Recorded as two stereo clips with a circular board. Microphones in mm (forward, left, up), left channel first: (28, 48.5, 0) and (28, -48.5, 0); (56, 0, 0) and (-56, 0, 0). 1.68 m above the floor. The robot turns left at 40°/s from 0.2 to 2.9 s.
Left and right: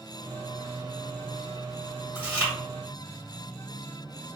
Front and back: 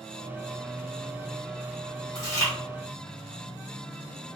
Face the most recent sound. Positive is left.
turn(degrees=-70)